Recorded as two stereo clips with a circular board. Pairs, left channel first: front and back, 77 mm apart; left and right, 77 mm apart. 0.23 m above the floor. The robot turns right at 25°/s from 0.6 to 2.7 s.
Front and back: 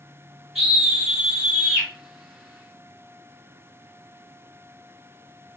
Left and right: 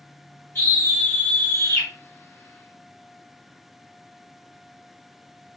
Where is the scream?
100° left, 1.1 m; by 1.9 s 130° left, 1.1 m.